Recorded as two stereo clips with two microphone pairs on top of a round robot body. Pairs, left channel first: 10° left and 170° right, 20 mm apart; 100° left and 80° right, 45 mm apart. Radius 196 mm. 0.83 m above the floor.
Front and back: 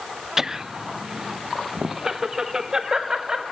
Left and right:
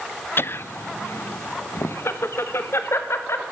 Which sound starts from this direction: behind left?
Laughter, at 0.4 s.